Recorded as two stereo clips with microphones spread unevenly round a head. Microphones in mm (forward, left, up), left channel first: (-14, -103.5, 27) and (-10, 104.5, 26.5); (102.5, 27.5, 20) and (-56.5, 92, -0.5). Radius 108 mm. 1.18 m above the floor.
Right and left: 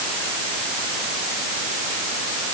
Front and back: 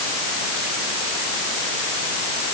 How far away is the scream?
I don't hear a scream.